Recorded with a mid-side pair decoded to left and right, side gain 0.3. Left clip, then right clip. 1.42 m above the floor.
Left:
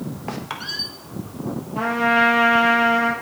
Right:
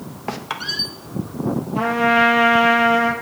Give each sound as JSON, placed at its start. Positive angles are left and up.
{"t": 0.3, "sound": "a squeak", "azimuth_deg": -35, "distance_m": 1.4}
{"t": 1.8, "sound": "a trumpet", "azimuth_deg": -30, "distance_m": 6.5}